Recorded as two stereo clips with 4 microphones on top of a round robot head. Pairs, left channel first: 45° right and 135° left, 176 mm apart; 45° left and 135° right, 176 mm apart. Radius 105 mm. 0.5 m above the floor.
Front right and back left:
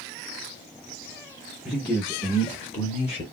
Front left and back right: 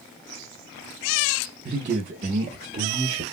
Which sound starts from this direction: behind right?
A man speaking, at 1.6 s.